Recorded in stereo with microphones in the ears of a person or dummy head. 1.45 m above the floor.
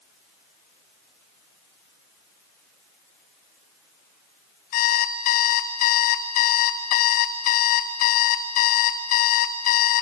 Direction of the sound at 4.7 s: 45° left (ahead or behind).